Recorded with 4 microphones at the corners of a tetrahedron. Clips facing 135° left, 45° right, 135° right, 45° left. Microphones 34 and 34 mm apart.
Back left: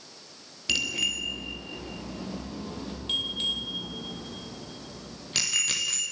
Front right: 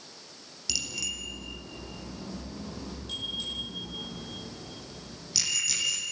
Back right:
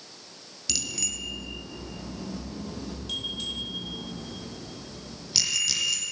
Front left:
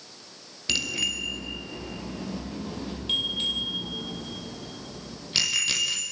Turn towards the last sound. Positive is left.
turn(degrees=95)